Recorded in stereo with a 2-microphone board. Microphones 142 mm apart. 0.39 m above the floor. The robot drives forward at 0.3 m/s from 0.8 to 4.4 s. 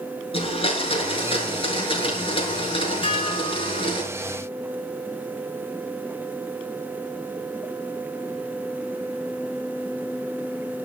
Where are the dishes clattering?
40° left (ahead or behind), 4 m.